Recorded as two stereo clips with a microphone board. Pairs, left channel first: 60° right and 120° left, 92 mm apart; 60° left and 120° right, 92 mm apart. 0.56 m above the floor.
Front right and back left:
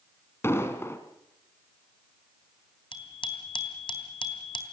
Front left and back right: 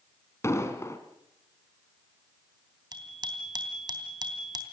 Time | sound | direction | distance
0.4 | an explosion | straight ahead | 2 m
2.9 | a bicycle bell | 80° right | 3 m